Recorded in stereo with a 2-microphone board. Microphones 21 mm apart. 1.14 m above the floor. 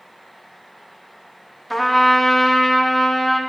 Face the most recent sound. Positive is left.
turn(degrees=5)  # may be behind; listen again after turning